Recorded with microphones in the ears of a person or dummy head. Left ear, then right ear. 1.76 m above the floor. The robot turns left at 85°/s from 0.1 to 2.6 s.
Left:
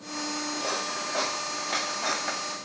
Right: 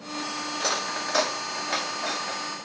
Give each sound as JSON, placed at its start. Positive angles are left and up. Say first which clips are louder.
{"t": 0.5, "sound": "cutlery clinking", "louder": "right 5 dB", "side_deg": -60, "distance_m": 2.5}